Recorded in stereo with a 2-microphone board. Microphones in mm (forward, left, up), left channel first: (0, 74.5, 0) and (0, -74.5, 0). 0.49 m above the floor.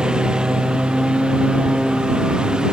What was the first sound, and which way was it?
A lawn mower, 5° right (ahead or behind).